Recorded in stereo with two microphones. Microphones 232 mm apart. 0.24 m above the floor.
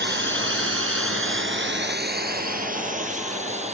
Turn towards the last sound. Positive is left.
turn(degrees=-30)  # may be behind; listen again after turning